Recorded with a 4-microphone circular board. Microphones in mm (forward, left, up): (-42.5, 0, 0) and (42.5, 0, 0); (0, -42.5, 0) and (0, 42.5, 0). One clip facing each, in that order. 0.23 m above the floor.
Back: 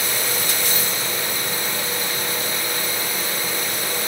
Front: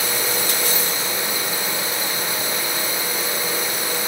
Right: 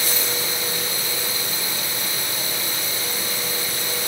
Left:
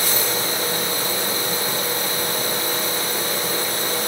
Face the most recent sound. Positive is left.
No sound to turn to.